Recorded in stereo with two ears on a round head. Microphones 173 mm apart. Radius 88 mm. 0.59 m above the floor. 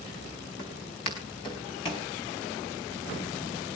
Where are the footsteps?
25° left (ahead or behind), 4.5 m; by 2.1 s 30° left (ahead or behind), 5 m.